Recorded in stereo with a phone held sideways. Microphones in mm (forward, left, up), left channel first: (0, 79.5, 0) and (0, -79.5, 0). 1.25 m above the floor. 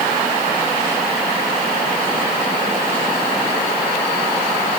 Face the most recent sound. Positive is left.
No sound to turn to.